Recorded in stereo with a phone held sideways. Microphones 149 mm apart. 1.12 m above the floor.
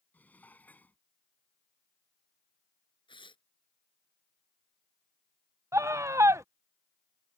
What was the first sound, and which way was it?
Dishes clattering, 10° left (ahead or behind).